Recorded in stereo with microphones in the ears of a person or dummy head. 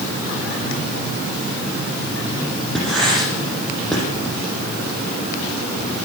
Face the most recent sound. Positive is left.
turn(degrees=0)  # may be behind; listen again after turning